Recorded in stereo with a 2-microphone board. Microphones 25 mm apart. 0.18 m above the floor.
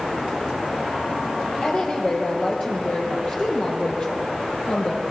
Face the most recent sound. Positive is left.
turn(degrees=40)  # may be behind; listen again after turning